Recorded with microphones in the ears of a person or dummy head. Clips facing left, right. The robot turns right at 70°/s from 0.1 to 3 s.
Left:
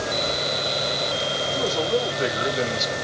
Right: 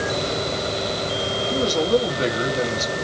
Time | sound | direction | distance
1.5 | a man speaking | 85° right | 1.6 m